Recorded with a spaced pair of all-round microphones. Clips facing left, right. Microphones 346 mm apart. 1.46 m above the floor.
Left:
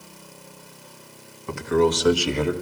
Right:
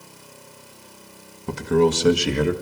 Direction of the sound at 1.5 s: 50° right (ahead or behind).